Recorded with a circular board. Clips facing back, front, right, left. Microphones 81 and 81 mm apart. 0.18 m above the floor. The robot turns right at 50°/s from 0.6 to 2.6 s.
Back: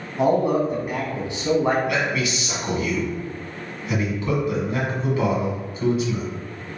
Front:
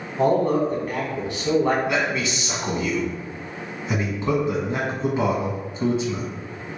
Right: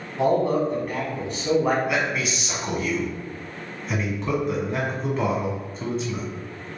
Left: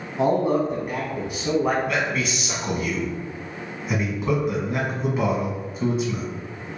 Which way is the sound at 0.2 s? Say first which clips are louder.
Even, even; 120° left.